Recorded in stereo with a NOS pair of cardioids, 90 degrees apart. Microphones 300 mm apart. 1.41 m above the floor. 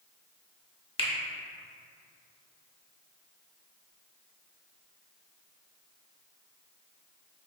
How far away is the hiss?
I don't hear a hiss.